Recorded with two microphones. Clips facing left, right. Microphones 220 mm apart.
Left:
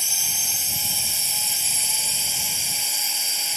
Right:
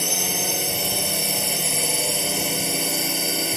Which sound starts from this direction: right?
A drone, at 0.0 s.